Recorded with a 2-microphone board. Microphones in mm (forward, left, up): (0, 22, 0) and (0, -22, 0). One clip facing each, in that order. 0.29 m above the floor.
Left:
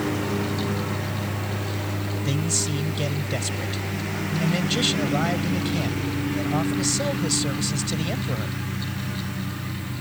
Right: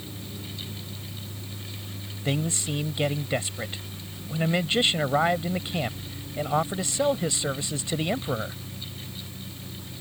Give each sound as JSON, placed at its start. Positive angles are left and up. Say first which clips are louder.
{"t": 0.0, "sound": "a lawn mower", "louder": "left 15 dB", "side_deg": 85}
{"t": 2.2, "sound": "a man speaking", "louder": "right 2 dB", "side_deg": -25}